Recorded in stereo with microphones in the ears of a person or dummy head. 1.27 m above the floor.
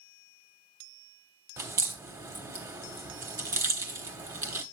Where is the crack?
15° right (ahead or behind), 1.1 m.